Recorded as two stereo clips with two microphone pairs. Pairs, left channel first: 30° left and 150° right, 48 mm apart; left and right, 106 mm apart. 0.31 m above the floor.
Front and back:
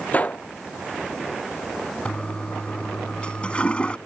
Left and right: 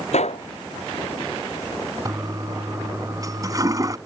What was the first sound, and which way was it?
A gunshot, 90° left.